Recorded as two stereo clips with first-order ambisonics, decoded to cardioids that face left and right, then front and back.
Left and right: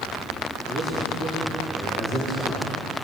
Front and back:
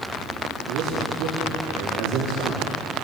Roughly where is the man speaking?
Behind.